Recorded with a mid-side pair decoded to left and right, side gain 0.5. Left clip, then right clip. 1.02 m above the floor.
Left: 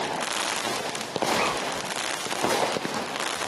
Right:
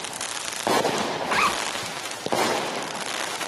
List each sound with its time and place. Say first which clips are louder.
1.2 s a zipper: right 2 dB; 65° right, 2 m